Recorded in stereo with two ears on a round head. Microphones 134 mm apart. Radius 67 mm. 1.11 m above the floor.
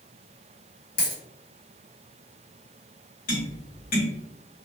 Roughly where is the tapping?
Left.